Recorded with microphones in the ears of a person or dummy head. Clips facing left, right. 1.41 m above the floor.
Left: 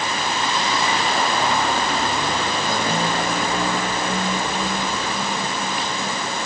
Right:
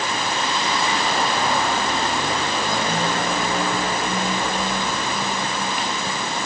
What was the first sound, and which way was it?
Only background noise.